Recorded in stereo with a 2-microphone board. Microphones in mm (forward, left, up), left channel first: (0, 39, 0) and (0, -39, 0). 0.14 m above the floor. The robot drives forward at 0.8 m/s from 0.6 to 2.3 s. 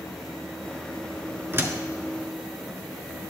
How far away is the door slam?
About 1.2 m.